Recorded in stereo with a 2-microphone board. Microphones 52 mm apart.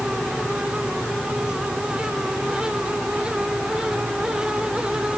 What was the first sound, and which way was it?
Only background noise.